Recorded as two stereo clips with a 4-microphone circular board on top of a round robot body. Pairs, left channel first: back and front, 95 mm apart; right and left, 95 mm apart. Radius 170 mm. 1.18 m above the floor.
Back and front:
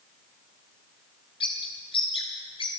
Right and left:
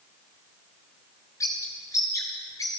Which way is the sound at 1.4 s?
145° right.